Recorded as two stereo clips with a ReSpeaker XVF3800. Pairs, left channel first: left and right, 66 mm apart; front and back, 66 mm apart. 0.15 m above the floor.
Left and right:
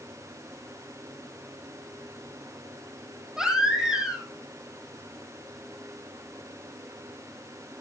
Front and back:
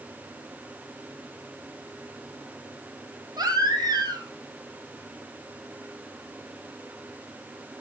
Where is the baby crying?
170° right, 3 m.